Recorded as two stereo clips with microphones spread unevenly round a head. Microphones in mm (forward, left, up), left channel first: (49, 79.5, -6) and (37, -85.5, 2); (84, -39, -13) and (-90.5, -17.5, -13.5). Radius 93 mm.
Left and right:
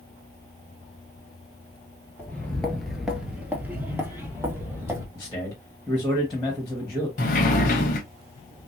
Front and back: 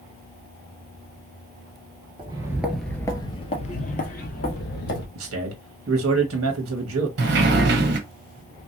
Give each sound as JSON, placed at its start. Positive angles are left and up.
{"t": 2.2, "sound": "footsteps", "azimuth_deg": 160, "distance_m": 1.1}
{"t": 5.2, "sound": "a man speaking", "azimuth_deg": 170, "distance_m": 1.0}
{"t": 7.2, "sound": "a sliding door", "azimuth_deg": 135, "distance_m": 0.8}